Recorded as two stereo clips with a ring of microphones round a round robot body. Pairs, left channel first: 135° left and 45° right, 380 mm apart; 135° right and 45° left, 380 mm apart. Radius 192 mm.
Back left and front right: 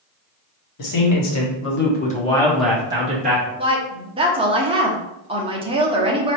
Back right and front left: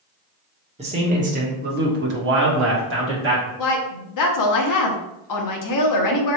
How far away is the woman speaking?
About 0.9 m.